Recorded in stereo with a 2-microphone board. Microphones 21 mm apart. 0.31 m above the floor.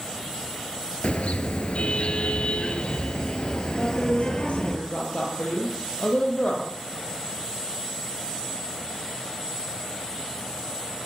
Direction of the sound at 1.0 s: 80° left.